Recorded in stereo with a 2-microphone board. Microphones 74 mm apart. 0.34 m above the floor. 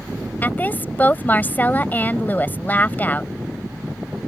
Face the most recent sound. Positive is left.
turn(degrees=25)  # may be behind; listen again after turning